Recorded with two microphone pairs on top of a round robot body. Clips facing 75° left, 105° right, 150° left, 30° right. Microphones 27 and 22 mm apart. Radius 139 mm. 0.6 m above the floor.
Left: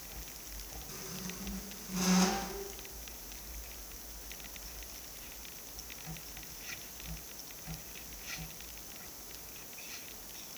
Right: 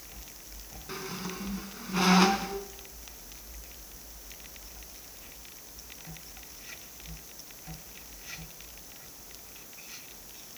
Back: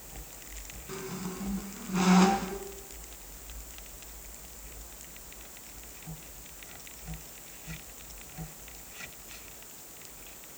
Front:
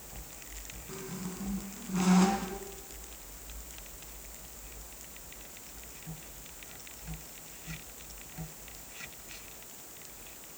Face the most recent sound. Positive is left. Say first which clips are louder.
# right 8 dB, back 3 dB
turn(degrees=-145)